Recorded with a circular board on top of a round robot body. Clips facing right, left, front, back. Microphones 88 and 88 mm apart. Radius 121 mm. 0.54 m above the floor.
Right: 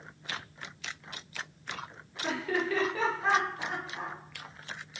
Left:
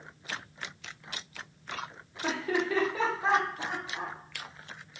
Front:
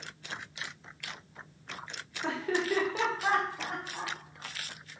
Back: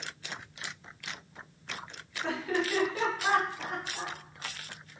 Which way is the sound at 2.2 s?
45° left.